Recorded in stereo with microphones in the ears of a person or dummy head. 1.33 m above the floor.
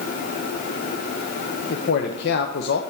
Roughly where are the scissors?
I don't hear scissors.